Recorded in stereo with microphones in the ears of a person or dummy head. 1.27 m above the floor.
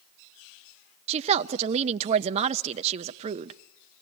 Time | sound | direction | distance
1.1 | a woman speaking | 35° right (ahead or behind) | 0.6 m